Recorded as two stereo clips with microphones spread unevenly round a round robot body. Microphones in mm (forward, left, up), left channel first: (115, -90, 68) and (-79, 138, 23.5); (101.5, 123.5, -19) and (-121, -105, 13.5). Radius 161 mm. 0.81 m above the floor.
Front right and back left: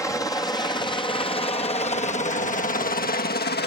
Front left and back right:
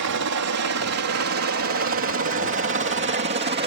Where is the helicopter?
135° right; by 3.7 s 90° right.